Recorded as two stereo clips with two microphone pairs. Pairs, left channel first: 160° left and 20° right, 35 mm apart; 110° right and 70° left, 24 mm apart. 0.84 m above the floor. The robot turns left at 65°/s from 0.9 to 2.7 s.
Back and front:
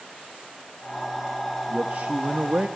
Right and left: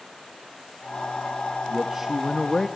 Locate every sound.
1.7 s a man speaking: 20° left, 0.7 m; by 2.7 s 45° right, 0.7 m